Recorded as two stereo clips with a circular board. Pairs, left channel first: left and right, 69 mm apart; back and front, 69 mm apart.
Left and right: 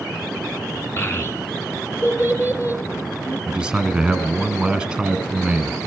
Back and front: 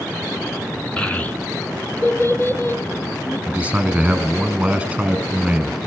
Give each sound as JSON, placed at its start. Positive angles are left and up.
{"t": 1.0, "sound": "a child speaking", "azimuth_deg": 110, "distance_m": 1.0}
{"t": 3.5, "sound": "a man speaking", "azimuth_deg": -35, "distance_m": 1.1}